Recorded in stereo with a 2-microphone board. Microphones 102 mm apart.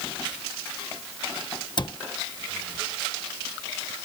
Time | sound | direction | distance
1.8 | a cupboard door | 50° left (ahead or behind) | ?